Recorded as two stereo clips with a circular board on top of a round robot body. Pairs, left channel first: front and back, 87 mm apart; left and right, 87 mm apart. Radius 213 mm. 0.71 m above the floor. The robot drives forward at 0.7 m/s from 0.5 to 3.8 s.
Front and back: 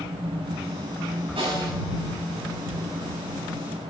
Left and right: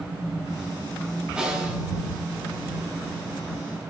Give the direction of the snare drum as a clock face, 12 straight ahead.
6 o'clock.